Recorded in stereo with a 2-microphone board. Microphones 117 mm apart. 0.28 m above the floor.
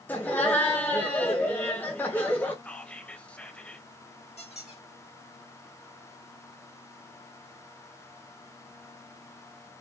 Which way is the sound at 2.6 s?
10° left (ahead or behind).